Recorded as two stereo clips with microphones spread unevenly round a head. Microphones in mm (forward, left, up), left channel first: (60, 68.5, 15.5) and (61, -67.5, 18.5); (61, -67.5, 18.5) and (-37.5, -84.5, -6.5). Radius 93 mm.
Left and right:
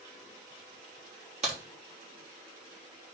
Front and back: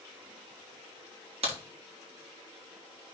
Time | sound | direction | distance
1.4 | a crack | 150° right | 3 m